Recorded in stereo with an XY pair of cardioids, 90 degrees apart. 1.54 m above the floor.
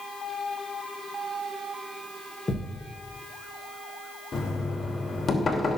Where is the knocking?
45° left, 2.5 m.